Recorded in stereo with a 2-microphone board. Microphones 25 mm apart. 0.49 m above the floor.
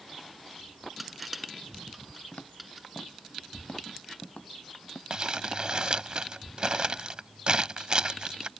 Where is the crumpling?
45° right (ahead or behind).